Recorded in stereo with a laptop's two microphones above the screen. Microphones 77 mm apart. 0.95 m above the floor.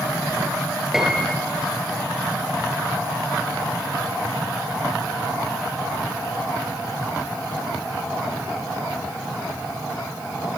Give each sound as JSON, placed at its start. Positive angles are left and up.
{"t": 0.9, "sound": "a piano", "side_deg": -5, "distance_m": 5.5}